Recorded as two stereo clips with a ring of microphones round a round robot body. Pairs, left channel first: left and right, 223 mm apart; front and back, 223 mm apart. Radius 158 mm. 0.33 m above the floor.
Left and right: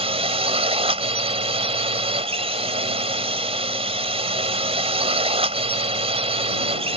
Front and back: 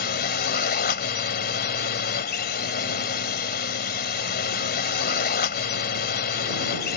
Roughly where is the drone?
Ahead right.